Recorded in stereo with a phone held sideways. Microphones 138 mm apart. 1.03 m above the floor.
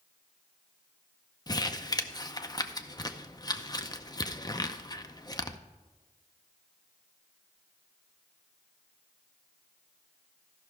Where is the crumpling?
30° left (ahead or behind), 0.6 m.